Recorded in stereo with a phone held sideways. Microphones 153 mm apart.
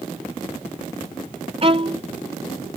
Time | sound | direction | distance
1.6 | a violin | 40° right (ahead or behind) | ?